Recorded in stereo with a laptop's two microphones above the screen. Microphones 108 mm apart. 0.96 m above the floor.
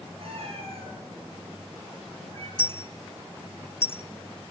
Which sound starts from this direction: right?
A cat meowing, at 0.2 s.